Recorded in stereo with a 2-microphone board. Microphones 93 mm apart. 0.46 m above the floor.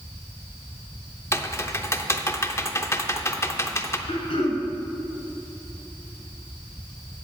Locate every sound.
1.3 s typing on a keyboard: 30° left (ahead or behind), 0.6 m
4.1 s throat clearing: 85° left, 3 m